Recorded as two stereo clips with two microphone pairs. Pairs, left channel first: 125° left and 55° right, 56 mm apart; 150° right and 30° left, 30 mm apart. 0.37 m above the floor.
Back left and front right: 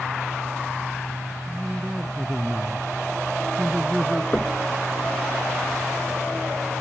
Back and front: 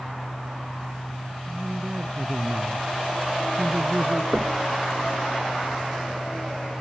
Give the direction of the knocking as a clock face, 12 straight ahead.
10 o'clock.